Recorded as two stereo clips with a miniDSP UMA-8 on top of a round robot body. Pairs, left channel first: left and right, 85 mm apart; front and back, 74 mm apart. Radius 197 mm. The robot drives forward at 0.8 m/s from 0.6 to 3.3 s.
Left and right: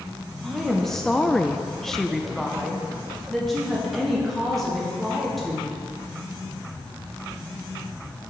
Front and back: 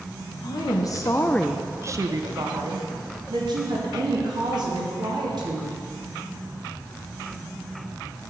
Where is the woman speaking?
5° left, 0.9 m; by 5.8 s straight behind, 1.6 m.